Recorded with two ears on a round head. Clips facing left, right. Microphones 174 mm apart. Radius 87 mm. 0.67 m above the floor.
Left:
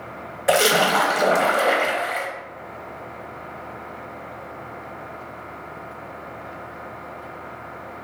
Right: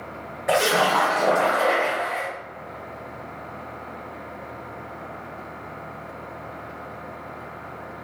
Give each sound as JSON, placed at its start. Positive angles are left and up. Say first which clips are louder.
{"t": 0.5, "sound": "a splash", "louder": "left 2 dB", "side_deg": 40, "distance_m": 0.8}